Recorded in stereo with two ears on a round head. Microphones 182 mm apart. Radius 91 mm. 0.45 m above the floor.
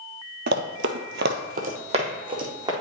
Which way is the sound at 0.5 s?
50° right (ahead or behind).